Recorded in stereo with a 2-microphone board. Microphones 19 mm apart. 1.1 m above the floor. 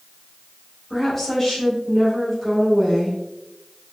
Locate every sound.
0.9 s a woman speaking: 20° left (ahead or behind), 1.9 m